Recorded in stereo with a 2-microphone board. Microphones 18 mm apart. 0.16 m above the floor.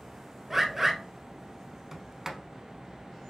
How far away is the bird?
About 0.7 m.